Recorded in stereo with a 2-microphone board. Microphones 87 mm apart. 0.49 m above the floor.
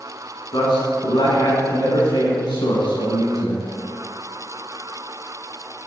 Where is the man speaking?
55° left (ahead or behind), 5 m.